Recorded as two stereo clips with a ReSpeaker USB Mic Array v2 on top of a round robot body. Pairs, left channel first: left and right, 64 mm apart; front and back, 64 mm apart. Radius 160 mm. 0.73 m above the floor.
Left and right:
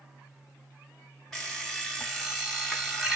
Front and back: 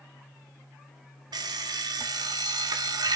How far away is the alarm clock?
About 0.5 m.